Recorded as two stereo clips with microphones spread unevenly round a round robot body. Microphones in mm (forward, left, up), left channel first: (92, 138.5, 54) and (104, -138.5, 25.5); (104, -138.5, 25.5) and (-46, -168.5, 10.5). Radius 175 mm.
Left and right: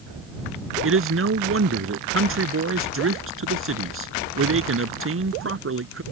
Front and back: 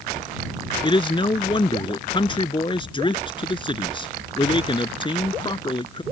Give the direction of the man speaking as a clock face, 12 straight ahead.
2 o'clock.